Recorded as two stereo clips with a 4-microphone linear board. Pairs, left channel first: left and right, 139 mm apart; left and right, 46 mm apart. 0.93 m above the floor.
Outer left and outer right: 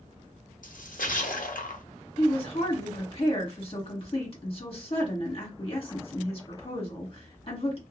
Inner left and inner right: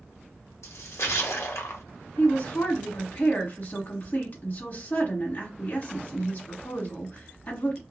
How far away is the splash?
About 0.6 m.